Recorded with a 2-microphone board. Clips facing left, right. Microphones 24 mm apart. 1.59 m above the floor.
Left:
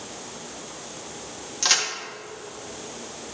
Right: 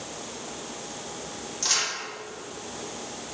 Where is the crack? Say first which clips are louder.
Left 4 dB; 40° left (ahead or behind), 1.6 m.